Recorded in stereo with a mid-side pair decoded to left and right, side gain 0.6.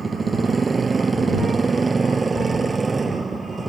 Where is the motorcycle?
20° right; by 3.7 s 15° right.